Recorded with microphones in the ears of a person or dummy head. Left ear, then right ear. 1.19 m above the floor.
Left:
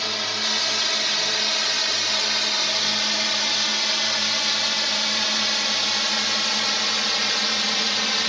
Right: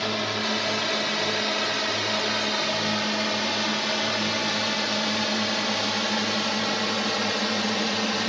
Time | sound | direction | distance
0.0 | a drone | 65° left (ahead or behind) | ?